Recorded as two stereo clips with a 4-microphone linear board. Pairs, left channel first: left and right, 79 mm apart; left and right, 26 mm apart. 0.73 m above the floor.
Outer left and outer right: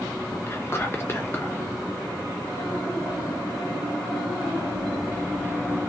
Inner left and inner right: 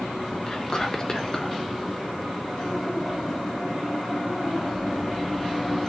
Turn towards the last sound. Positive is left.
turn(degrees=30)  # may be behind; listen again after turning